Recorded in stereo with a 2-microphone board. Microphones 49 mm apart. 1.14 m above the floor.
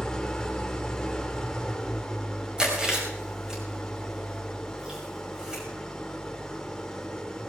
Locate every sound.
0.0 s an engine running: 15° left (ahead or behind), 1.5 m
2.6 s chewing: 15° right (ahead or behind), 5.5 m